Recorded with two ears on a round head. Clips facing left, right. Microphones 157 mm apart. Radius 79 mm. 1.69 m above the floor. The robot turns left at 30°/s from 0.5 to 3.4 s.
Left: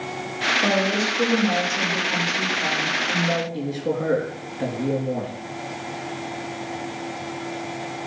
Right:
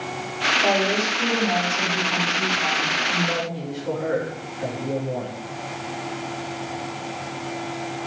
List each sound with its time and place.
0.6 s a woman speaking: 105° left, 3.5 m; by 3.4 s 25° left, 3.5 m
3.5 s a man speaking: 65° left (ahead or behind), 3 m